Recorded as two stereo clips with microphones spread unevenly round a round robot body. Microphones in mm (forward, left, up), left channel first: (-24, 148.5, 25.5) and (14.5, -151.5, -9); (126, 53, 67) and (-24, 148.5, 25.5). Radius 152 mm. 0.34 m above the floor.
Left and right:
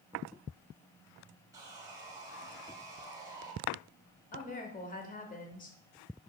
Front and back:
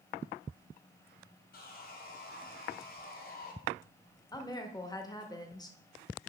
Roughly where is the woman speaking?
Ahead left.